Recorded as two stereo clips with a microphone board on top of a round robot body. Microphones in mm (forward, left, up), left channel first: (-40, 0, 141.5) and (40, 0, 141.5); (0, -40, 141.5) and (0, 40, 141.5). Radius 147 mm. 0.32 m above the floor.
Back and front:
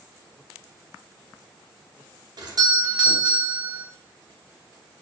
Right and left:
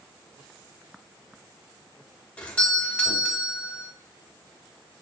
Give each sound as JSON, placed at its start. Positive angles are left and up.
{"t": 2.4, "sound": "a doorbell", "azimuth_deg": -15, "distance_m": 3.5}